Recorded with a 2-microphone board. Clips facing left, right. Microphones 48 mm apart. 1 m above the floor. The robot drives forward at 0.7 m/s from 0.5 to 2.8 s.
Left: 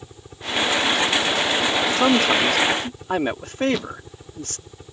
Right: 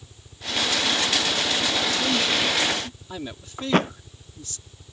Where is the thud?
45° right (ahead or behind).